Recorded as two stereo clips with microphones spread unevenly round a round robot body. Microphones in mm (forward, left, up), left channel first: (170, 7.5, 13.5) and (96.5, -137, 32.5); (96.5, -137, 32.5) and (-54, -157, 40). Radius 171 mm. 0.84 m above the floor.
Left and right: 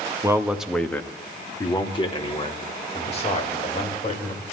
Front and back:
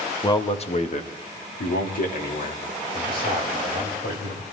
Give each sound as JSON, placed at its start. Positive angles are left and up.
{"t": 0.2, "sound": "a man speaking", "azimuth_deg": -45, "distance_m": 1.2}